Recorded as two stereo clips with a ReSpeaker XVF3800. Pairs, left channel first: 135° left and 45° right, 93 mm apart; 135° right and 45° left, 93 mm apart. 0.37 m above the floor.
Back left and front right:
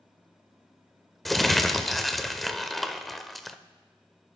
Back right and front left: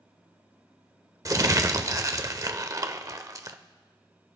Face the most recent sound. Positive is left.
turn(degrees=45)